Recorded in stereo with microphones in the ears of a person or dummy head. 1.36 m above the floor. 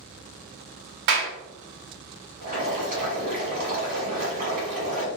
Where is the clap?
50° right (ahead or behind), 0.6 m.